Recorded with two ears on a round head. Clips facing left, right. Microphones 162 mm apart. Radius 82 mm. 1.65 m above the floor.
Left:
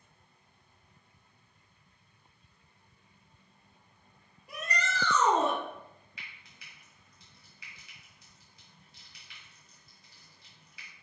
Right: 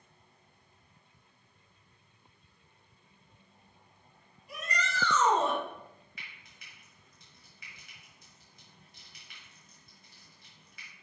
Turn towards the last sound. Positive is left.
turn(degrees=-40)  # may be behind; listen again after turning